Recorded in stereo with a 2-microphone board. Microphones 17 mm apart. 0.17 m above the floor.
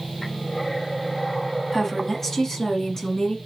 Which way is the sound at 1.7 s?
20° left (ahead or behind).